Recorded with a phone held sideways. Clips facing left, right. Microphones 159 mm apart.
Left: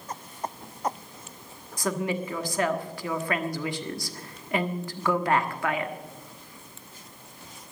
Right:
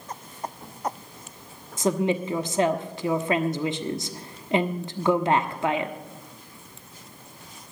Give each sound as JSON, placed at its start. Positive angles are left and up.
{"t": 1.8, "sound": "a woman speaking", "side_deg": -25, "distance_m": 1.2}